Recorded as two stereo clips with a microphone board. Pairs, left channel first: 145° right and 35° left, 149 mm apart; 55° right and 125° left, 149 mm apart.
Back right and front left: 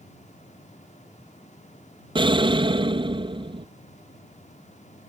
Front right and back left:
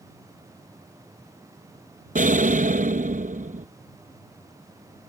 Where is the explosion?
90° left.